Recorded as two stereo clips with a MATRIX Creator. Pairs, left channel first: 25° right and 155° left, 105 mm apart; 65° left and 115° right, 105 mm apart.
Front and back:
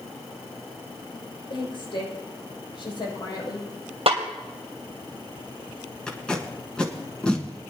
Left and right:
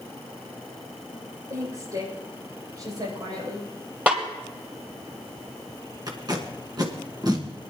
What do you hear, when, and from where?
1.5 s a woman speaking: 55° right, 5.5 m; by 3.7 s 60° right, 6.5 m
4.1 s a snare drum: 170° left, 2.5 m
6.1 s tape being pulled: 100° right, 1.6 m